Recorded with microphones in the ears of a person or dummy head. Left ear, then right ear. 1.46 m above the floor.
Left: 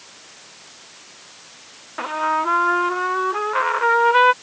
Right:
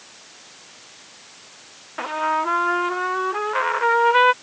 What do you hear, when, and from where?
2.0 s a trumpet: 5° right (ahead or behind)